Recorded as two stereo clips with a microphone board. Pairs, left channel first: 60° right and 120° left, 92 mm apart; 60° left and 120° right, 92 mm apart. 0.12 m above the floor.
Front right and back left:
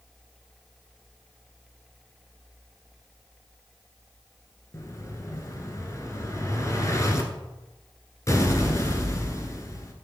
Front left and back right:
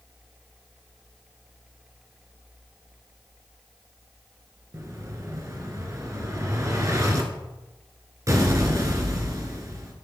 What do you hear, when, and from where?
4.7 s an explosion: 90° right, 1.5 m